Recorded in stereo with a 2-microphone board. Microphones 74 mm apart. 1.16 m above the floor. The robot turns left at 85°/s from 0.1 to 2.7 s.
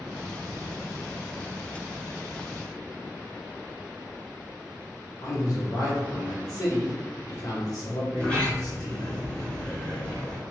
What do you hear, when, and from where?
5.2 s a man speaking: 55° left (ahead or behind), 1.2 m
8.1 s a sliding door: 10° left (ahead or behind), 1.1 m